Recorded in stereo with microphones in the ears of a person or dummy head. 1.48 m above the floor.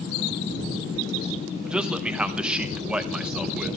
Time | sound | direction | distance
1.6 | a man speaking | 5° right (ahead or behind) | 1.0 m